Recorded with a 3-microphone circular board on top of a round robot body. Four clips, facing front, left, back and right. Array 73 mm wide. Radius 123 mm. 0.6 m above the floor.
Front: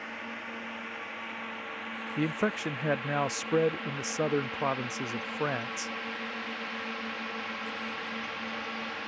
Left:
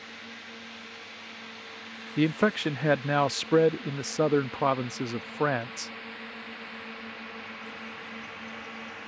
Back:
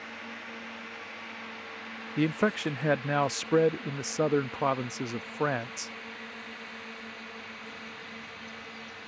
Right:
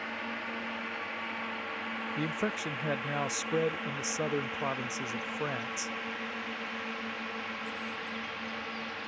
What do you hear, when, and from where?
0.0 s a drone: 75° right; by 9.1 s 10° right
2.2 s a man speaking: 110° left